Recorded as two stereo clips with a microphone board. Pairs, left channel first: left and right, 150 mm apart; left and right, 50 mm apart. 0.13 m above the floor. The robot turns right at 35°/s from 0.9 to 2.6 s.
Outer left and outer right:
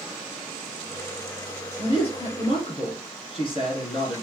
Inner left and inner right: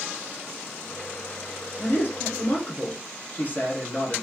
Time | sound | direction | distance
1.8 | a man speaking | 40° left (ahead or behind) | 1.9 m